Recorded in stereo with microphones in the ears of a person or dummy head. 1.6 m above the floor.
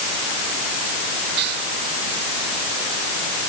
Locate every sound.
1.4 s whispering: 60° right (ahead or behind)